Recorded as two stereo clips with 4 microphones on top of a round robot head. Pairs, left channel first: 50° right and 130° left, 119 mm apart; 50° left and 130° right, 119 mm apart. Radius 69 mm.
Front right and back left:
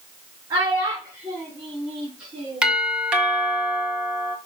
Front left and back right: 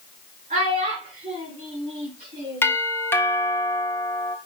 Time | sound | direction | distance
0.5 | a child speaking | 165° right | 5 m
2.6 | a doorbell | 65° left | 1.7 m